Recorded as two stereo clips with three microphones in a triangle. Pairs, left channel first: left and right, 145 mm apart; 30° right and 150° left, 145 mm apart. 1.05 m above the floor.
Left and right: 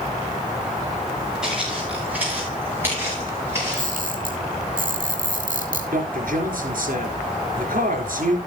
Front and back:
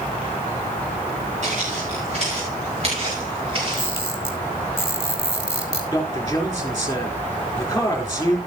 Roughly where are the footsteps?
Behind.